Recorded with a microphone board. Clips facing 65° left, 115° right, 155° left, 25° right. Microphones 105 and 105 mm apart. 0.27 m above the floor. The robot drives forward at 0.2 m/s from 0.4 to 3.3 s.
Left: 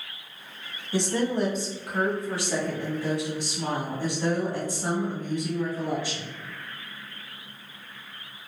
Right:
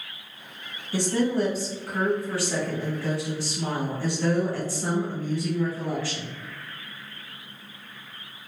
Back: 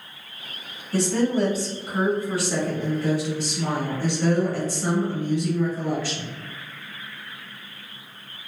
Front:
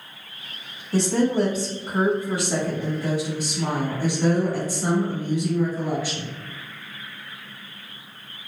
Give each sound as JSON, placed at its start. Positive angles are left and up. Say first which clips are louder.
{"t": 0.9, "sound": "a woman speaking", "louder": "right 2 dB, front 1 dB", "azimuth_deg": 15, "distance_m": 1.3}